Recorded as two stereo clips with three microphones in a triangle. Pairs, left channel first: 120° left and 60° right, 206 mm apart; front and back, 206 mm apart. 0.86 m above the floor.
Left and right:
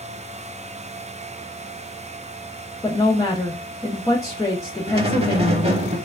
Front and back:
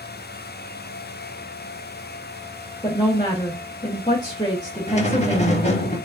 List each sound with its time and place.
2.8 s a woman speaking: 55° left, 0.9 m
4.9 s a squeak: 25° right, 0.7 m